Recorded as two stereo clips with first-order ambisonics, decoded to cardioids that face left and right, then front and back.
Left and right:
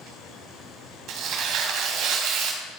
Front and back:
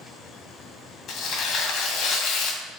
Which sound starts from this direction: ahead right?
Tearing paper, at 1.1 s.